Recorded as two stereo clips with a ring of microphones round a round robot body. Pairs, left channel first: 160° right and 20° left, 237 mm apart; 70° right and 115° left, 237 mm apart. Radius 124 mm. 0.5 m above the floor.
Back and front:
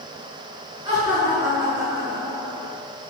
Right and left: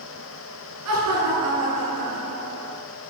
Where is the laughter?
95° left, 7 m; by 2.8 s 90° left, 6 m.